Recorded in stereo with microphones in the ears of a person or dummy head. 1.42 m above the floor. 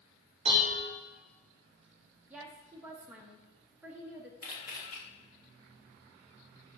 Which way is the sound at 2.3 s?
15° right (ahead or behind).